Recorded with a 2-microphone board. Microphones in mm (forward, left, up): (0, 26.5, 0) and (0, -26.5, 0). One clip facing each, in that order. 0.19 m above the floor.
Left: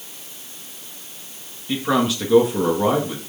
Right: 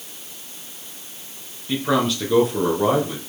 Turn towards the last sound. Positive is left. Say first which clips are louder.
# even
turn(degrees=5)  # may be behind; listen again after turning